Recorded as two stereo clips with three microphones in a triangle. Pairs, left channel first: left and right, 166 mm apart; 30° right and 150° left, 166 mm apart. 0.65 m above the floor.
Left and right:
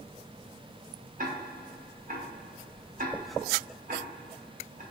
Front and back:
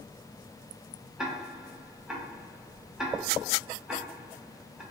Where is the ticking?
125° right, 0.7 m.